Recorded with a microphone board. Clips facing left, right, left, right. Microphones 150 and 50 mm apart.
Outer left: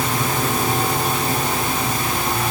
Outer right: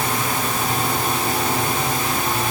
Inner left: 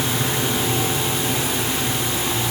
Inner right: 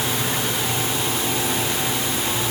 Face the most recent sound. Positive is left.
No sound to turn to.